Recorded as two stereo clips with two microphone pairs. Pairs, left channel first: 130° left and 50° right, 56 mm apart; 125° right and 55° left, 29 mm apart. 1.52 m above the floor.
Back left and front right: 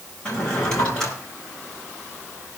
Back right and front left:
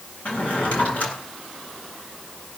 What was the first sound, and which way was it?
A drawer, 150° right.